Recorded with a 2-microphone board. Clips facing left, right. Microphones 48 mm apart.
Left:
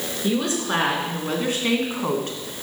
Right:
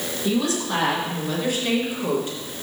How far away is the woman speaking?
About 3.5 m.